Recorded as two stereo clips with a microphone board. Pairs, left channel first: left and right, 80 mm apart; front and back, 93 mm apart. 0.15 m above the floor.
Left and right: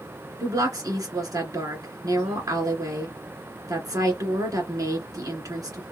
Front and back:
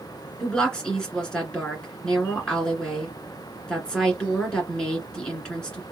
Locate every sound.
0.4 s a woman speaking: 80° right, 2 m